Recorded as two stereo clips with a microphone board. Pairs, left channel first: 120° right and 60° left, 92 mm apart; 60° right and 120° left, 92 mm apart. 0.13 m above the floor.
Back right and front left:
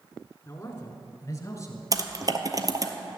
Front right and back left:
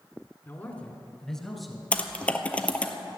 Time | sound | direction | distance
0.5 | a man speaking | 100° right | 1.7 m
1.9 | typing on a keyboard | 15° left | 1.0 m